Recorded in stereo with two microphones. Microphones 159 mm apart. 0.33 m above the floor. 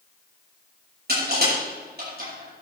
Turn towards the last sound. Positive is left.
turn(degrees=-85)